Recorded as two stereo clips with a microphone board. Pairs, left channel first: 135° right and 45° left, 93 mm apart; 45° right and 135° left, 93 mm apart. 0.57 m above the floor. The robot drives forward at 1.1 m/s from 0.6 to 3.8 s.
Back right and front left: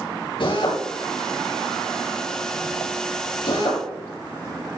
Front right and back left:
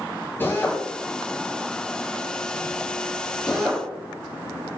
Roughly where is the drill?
Behind right.